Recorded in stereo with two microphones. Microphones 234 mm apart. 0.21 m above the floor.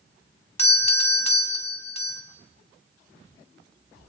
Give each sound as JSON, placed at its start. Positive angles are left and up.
{"t": 0.6, "sound": "a doorbell", "side_deg": 25, "distance_m": 1.9}